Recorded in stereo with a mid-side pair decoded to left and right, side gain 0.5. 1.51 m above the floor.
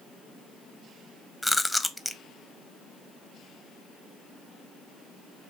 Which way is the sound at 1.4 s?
5° left.